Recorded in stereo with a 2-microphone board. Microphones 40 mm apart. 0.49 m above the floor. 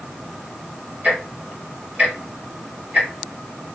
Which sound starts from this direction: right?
Ticking, at 1.0 s.